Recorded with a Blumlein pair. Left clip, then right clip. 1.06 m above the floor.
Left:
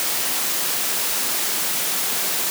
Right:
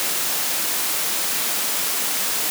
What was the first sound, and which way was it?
Only background noise.